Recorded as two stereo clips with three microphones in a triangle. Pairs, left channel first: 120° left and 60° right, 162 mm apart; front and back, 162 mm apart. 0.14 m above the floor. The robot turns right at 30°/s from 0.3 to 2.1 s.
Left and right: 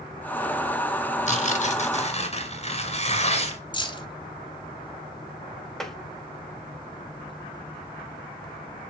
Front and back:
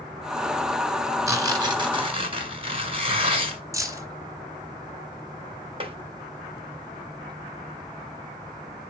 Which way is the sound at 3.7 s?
135° left.